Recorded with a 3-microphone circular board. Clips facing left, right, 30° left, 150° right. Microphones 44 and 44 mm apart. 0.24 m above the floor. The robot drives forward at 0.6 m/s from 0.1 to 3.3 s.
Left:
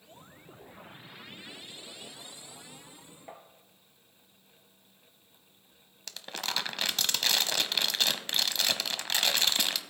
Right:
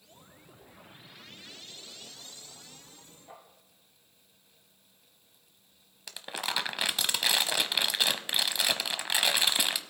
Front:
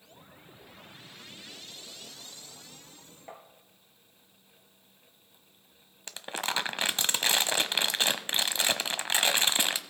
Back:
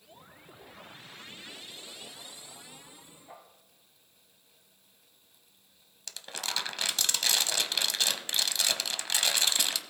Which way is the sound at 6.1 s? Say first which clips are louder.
Right 1 dB, front 4 dB; 20° right.